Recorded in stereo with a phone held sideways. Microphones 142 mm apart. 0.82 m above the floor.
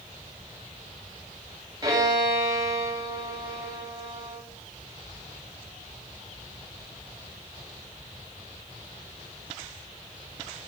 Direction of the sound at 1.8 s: 30° right (ahead or behind).